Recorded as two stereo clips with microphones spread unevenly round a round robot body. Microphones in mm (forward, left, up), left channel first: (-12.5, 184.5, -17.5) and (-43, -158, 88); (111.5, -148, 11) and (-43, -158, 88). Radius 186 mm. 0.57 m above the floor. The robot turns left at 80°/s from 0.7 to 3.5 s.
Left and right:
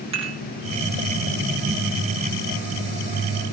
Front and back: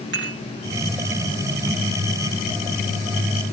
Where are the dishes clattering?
170° right, 3.5 m.